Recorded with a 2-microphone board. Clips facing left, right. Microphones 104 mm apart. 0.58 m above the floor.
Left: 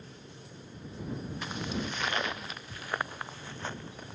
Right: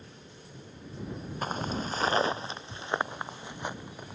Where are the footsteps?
45° right (ahead or behind); by 4.2 s 10° right (ahead or behind).